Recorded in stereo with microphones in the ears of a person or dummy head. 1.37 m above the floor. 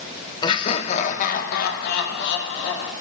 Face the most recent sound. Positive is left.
turn(degrees=75)  # may be behind; listen again after turning